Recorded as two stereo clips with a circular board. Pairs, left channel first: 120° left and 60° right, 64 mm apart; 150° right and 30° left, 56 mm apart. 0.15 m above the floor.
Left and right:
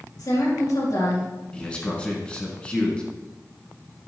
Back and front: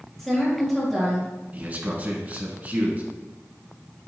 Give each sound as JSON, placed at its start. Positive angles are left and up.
{"t": 0.2, "sound": "a woman speaking", "azimuth_deg": 125, "distance_m": 3.5}
{"t": 1.5, "sound": "a man speaking", "azimuth_deg": 60, "distance_m": 1.7}